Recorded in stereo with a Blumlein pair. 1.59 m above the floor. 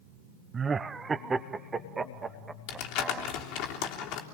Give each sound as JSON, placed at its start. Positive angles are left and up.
{"t": 0.5, "sound": "laughter", "azimuth_deg": -15, "distance_m": 0.7}
{"t": 2.7, "sound": "crumpling", "azimuth_deg": 40, "distance_m": 3.5}